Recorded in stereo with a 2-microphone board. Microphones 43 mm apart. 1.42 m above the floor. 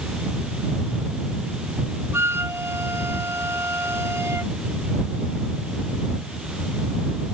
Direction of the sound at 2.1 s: 65° right (ahead or behind).